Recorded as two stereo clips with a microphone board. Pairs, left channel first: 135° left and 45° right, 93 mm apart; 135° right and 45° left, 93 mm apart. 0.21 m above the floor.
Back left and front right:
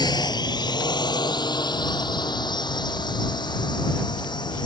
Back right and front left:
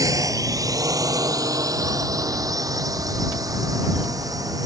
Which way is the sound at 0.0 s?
95° left.